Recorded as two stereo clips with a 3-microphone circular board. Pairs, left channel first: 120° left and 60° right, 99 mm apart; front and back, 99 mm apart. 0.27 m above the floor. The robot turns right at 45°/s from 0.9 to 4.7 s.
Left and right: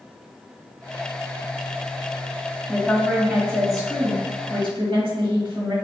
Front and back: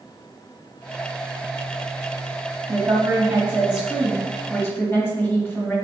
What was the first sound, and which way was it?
A woman speaking, 150° right.